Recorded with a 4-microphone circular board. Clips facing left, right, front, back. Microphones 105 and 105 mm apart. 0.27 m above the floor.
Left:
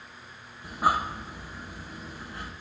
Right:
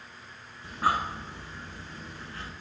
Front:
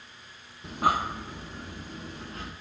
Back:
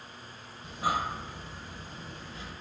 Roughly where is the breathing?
Ahead.